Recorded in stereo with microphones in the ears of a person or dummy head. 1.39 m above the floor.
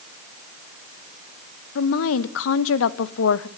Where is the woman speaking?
70° left (ahead or behind), 1.2 m.